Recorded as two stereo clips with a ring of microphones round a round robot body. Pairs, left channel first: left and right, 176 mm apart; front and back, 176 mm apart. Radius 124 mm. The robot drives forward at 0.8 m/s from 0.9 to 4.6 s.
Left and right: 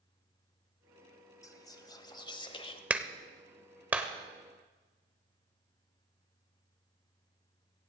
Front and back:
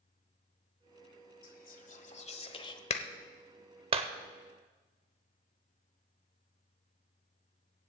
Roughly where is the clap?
Ahead.